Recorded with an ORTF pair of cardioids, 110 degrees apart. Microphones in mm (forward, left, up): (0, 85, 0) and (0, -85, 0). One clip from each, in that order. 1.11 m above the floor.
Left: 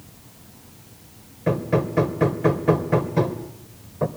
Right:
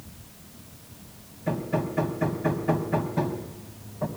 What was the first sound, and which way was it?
Hammering, 65° left.